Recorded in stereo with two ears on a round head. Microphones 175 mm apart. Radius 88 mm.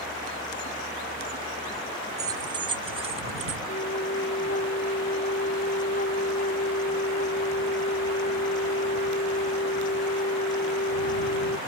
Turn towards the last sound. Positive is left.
turn(degrees=40)  # may be behind; listen again after turning